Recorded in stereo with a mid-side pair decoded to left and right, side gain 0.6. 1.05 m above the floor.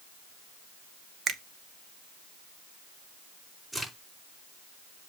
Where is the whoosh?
I don't hear a whoosh.